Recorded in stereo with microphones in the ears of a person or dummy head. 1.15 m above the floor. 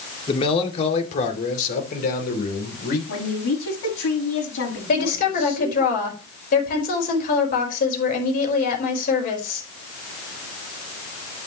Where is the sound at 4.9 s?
50° left (ahead or behind), 5 m.